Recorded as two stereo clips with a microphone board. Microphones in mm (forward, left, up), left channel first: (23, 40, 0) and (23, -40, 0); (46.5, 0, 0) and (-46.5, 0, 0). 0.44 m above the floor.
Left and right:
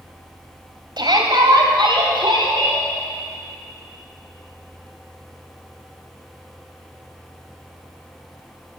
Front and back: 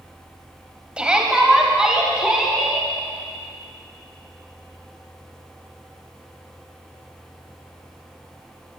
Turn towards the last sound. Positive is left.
turn(degrees=-95)